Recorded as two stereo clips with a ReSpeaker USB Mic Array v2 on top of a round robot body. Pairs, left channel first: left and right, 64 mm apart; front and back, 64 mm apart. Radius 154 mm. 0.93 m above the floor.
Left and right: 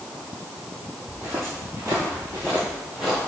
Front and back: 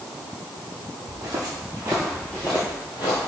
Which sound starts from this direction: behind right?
Footsteps, at 1.1 s.